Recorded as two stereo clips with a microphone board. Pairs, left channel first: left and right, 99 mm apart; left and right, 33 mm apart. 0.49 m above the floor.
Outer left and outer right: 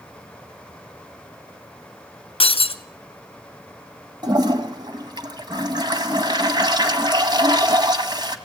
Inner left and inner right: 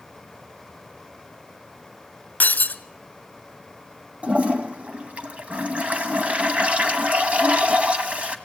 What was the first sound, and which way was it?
Breaking glass, 70° left (ahead or behind).